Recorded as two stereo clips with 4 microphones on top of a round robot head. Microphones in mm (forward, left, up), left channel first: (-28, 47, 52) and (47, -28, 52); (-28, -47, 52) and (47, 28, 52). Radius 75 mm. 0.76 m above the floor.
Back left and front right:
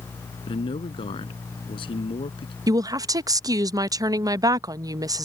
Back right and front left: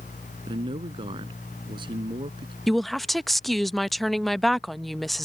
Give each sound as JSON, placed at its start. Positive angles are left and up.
{"t": 0.5, "sound": "a man speaking", "azimuth_deg": 95}
{"t": 2.7, "sound": "a woman speaking", "azimuth_deg": -50}